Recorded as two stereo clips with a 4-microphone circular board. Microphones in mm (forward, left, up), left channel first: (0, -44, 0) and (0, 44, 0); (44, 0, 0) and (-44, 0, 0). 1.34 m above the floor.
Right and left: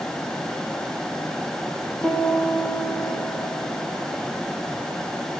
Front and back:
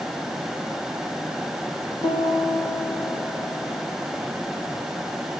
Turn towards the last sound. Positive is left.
turn(degrees=-10)